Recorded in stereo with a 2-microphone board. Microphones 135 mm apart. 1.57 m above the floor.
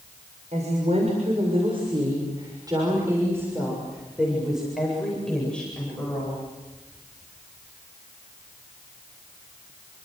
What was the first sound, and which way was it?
A woman speaking, 60° right (ahead or behind).